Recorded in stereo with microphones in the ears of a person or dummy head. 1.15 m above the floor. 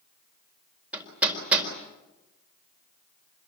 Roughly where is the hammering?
Centre.